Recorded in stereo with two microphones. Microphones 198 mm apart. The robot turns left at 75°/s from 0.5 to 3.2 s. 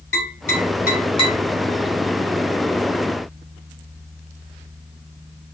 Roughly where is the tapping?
Left.